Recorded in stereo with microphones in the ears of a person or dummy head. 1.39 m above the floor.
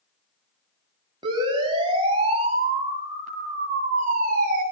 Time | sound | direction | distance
1.2 | a siren | 20° right (ahead or behind) | 8 m